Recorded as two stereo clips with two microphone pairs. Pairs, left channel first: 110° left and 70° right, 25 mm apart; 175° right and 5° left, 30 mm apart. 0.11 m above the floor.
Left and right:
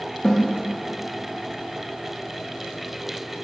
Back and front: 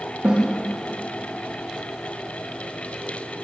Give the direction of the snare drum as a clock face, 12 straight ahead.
11 o'clock.